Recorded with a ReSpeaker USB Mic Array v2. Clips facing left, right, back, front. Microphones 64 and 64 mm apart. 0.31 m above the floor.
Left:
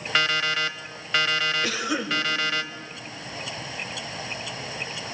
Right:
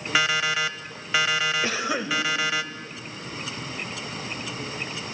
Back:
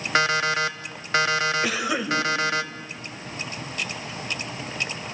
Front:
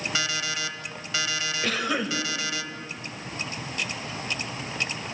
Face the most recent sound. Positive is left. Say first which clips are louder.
# right 1 dB, back 2 dB
turn(degrees=-110)